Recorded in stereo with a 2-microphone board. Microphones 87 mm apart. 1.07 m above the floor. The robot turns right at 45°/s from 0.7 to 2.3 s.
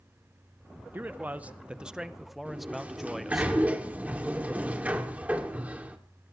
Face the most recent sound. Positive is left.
turn(degrees=-15)  # may be behind; listen again after turning